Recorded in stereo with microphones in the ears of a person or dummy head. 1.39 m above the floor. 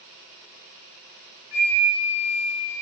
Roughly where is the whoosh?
No whoosh in this recording.